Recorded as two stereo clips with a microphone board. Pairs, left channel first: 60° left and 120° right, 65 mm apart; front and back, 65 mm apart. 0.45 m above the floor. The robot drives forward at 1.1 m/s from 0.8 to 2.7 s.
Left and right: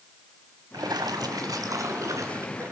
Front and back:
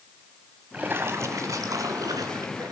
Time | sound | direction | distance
0.7 | a splash | 115° right | 0.9 m